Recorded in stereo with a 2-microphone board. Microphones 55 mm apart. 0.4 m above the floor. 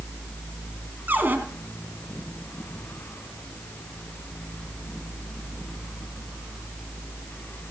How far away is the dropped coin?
No dropped coin in this recording.